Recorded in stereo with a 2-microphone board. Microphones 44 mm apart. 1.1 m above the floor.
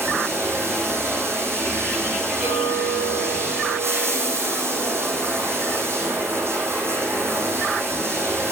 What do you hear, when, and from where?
0.0 s running water: 65° right (ahead or behind), 5.5 m
2.4 s a clink: 45° right (ahead or behind), 10 m